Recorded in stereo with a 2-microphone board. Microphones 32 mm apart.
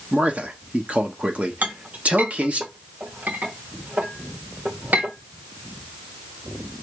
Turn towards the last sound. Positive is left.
turn(degrees=-65)  # may be behind; listen again after turning